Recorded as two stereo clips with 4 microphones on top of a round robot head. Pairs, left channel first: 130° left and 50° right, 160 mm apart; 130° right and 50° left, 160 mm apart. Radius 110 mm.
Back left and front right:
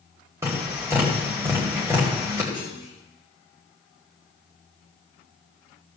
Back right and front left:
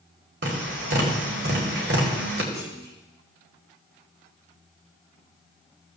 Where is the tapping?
25° left, 1.8 m.